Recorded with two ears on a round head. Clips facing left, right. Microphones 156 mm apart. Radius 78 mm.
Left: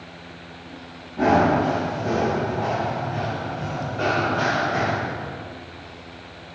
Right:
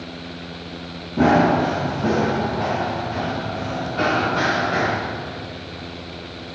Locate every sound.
1.2 s running footsteps: 60° right (ahead or behind), 4 m; by 4.9 s 85° right, 5.5 m